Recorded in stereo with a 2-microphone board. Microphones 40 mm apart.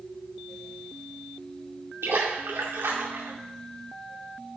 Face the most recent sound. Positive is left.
turn(degrees=-75)  # may be behind; listen again after turning